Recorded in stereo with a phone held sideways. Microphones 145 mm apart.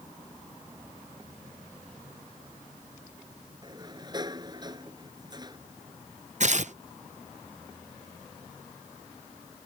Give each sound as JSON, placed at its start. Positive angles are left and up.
{"t": 3.6, "sound": "a sliding door", "side_deg": -30}
{"t": 6.4, "sound": "tearing paper", "side_deg": -55}